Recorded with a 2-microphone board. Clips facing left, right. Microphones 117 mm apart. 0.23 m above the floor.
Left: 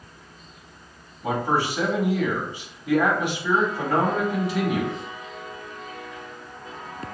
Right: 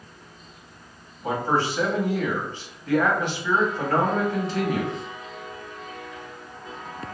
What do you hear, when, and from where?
1.2 s a man speaking: 15° left (ahead or behind), 1.0 m